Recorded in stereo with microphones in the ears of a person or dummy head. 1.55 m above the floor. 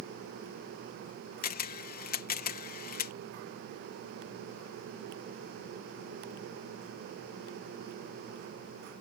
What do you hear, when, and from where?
1.4 s a camera shutter: 40° left (ahead or behind)